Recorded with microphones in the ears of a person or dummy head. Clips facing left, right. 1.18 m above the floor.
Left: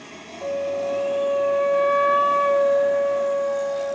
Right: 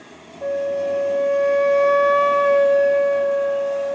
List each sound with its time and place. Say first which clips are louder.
0.4 s a flute: right 3 dB; 20° right (ahead or behind), 0.7 m